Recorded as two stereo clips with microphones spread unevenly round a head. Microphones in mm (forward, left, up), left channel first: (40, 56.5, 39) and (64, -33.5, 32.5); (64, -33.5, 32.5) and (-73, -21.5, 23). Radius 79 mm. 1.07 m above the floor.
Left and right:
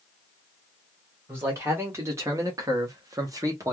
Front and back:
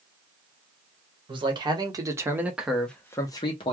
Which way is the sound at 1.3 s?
140° right.